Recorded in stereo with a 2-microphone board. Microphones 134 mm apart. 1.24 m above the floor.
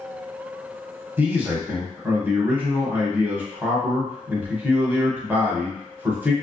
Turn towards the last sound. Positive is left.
turn(degrees=-15)  # may be behind; listen again after turning